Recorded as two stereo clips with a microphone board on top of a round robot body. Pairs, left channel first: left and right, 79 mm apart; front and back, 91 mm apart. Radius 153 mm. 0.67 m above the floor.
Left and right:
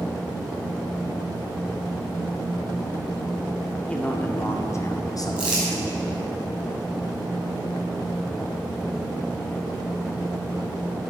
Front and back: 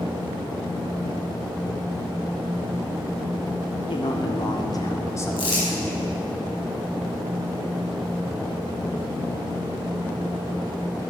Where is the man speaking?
15° left, 1.9 m; by 6.2 s 75° left, 2.5 m.